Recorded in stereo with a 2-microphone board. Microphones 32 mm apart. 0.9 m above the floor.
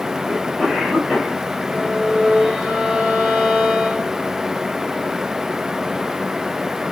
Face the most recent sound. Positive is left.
turn(degrees=-25)  # may be behind; listen again after turning